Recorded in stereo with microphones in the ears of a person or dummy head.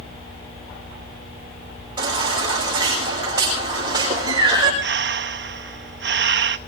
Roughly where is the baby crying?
Centre.